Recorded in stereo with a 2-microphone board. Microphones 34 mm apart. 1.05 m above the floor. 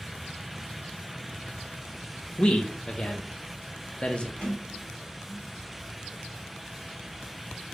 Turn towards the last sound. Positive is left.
turn(degrees=25)  # may be behind; listen again after turning